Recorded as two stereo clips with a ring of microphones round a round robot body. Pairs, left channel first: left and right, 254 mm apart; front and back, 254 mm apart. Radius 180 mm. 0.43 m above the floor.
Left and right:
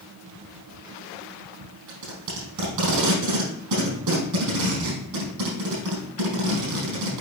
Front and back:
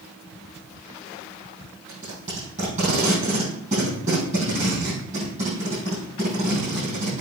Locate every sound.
1.9 s tape being pulled: 110° right, 4.5 m